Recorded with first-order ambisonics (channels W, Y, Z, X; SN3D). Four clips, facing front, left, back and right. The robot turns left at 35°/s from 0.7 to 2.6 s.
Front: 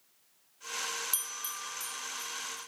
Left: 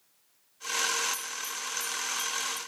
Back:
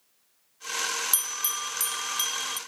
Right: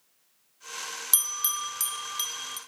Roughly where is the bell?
Behind right.